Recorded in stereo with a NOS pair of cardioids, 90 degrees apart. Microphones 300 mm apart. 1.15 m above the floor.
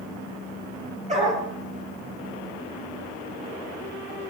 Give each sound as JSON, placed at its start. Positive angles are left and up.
{"t": 1.1, "sound": "a dog barking", "azimuth_deg": -20, "distance_m": 9.0}